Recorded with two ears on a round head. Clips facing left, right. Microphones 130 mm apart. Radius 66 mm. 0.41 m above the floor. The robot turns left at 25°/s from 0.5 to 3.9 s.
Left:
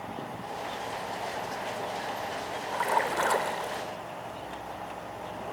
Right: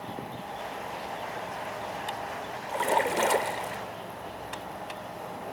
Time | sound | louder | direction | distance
2.7 | a splash | right 2 dB | 30° right (ahead or behind) | 0.9 m